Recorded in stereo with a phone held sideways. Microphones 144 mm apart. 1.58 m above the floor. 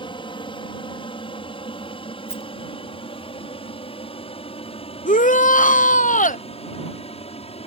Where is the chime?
No chime in this recording.